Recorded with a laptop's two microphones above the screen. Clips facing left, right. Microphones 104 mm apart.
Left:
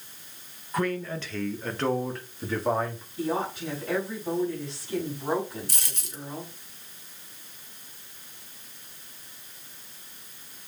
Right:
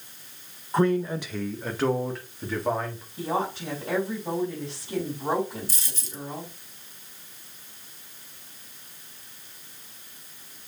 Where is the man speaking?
30° right (ahead or behind), 0.6 m; by 3.0 s 5° left (ahead or behind), 1.8 m.